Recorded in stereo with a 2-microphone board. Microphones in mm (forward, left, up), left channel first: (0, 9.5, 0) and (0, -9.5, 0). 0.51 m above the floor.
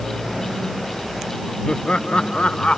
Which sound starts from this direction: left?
Laughter, at 1.7 s.